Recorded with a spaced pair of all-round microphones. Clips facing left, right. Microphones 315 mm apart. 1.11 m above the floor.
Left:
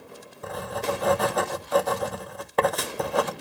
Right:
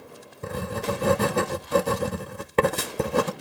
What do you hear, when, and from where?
0.4 s writing: 30° right (ahead or behind), 0.9 m